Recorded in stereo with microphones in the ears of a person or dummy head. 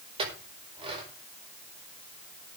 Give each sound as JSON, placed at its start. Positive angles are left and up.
{"t": 0.2, "sound": "a clink", "side_deg": -35, "distance_m": 5.0}